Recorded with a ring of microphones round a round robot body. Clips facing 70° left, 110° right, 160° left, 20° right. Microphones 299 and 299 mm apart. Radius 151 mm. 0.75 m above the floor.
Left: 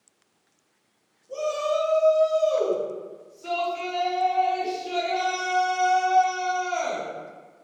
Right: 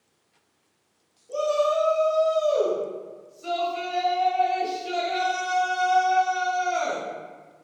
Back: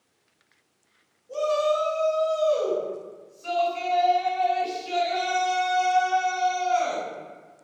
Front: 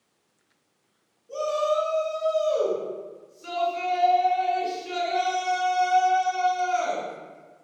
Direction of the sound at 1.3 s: 70° right.